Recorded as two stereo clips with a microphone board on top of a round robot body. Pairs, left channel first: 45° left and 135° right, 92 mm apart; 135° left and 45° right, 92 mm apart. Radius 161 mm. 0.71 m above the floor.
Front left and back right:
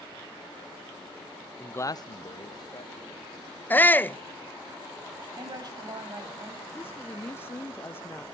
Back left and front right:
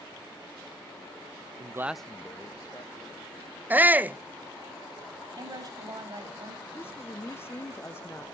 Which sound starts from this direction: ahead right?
A man speaking, at 1.6 s.